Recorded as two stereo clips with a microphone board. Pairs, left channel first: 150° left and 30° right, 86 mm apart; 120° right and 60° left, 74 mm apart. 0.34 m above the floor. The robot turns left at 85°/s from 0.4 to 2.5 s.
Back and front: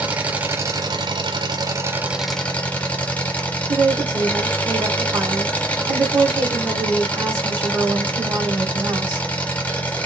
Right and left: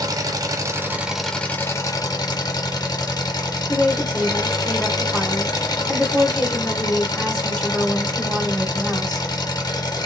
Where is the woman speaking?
60° right, 1.5 m.